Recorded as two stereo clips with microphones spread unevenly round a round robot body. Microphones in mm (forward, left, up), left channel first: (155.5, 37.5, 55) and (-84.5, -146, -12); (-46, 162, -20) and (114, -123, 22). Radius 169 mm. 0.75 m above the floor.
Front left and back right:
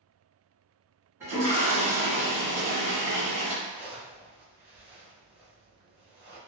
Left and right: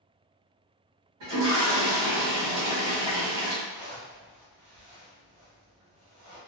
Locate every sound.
1.2 s a toilet flushing: 75° right, 1.5 m
3.6 s a zipper: 75° right, 1.2 m